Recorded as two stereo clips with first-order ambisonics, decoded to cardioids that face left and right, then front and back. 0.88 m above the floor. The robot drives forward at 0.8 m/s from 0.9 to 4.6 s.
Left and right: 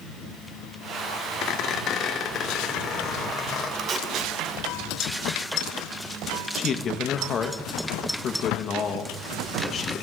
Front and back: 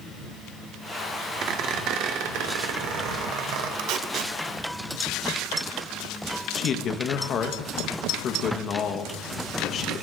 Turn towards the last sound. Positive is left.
turn(degrees=40)